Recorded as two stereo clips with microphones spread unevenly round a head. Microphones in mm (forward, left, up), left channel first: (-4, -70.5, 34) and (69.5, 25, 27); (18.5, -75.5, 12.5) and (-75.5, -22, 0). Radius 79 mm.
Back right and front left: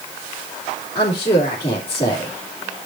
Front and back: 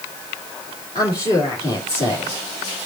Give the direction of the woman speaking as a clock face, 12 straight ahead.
2 o'clock.